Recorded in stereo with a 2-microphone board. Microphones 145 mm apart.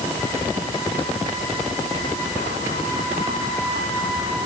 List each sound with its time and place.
Only background noise.